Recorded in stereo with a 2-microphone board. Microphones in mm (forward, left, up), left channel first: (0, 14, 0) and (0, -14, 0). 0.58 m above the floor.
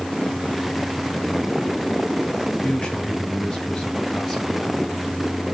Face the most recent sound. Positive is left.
turn(degrees=20)  # may be behind; listen again after turning